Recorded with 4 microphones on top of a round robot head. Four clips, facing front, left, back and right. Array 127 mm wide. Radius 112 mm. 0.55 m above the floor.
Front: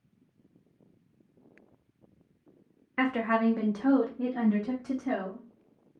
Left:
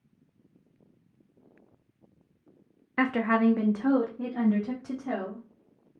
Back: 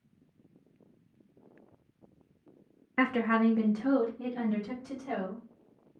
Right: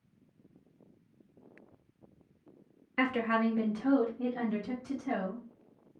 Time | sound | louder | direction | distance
3.0 | a woman speaking | left 5 dB, even | 110° left | 0.7 m